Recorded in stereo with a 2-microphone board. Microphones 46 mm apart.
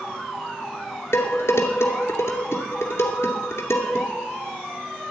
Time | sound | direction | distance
1.1 | dishes clattering | 70° left (ahead or behind) | 2 m